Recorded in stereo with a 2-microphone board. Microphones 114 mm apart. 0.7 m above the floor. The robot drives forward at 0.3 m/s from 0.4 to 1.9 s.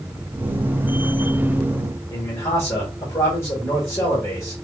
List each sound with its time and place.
2.1 s a man speaking: 25° left (ahead or behind), 1.3 m